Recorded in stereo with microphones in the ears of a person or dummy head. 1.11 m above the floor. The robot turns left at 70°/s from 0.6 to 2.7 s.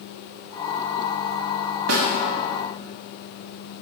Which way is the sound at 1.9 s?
80° right.